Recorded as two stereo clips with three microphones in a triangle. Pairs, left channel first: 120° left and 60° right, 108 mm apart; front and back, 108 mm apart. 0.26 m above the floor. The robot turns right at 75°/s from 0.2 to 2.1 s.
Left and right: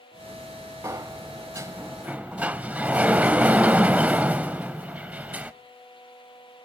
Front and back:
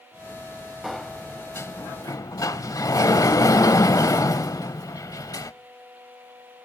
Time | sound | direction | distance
0.8 | a sliding door | 95° right | 0.6 m